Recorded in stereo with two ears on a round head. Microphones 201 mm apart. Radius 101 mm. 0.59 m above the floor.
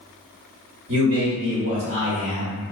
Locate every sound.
0.9 s a man speaking: 55° right (ahead or behind), 1.0 m